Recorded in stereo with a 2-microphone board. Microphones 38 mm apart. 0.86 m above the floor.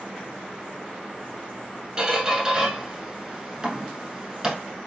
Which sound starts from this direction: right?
A squeak, at 2.0 s.